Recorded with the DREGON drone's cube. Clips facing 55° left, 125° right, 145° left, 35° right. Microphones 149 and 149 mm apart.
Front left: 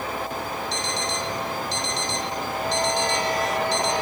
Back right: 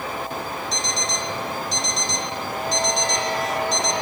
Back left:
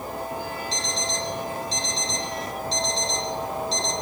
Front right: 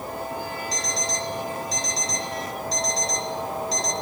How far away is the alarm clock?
About 3 m.